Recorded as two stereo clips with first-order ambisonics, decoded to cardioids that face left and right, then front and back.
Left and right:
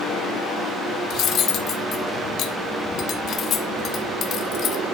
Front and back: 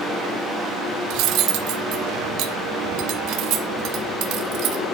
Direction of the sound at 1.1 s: 145° left.